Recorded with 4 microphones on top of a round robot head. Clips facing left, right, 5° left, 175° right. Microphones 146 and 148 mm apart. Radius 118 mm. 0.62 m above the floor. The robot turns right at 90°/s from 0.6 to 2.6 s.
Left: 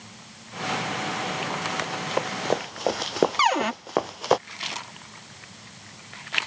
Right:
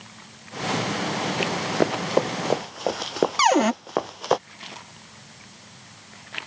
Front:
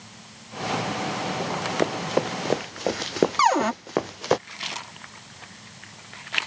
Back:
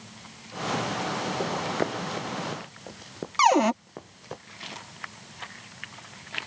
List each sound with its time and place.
1.4 s running footsteps: 110° right; by 4.4 s straight ahead
3.4 s a cupboard door: 110° right